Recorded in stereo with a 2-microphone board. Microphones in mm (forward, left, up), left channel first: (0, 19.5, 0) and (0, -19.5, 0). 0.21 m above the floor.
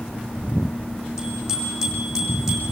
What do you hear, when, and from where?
1.2 s a bicycle bell: 15° right (ahead or behind), 8 m; by 2.7 s 10° right (ahead or behind), 8 m